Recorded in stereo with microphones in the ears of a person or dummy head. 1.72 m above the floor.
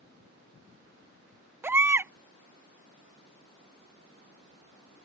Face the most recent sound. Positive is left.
turn(degrees=-15)  # may be behind; listen again after turning